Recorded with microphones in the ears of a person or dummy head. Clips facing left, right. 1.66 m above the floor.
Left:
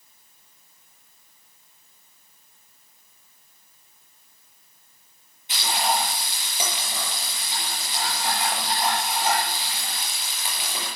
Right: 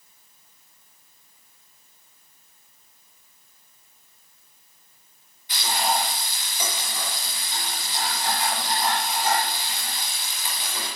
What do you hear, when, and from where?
5.5 s frying: 25° left (ahead or behind), 8 m